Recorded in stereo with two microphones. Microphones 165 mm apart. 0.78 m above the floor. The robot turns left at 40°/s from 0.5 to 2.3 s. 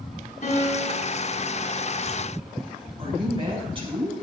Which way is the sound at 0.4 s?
60° left (ahead or behind).